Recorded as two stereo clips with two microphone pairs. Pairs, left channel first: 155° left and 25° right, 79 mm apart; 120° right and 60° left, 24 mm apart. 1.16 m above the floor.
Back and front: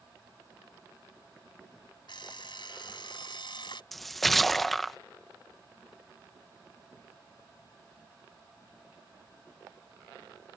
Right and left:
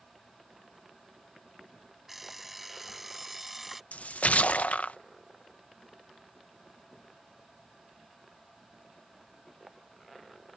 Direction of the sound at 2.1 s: 145° left.